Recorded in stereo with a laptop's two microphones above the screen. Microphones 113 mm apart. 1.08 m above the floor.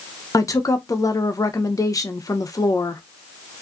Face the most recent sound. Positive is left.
turn(degrees=30)  # may be behind; listen again after turning